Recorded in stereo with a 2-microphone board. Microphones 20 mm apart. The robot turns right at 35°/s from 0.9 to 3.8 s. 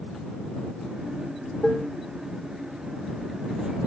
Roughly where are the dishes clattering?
Centre.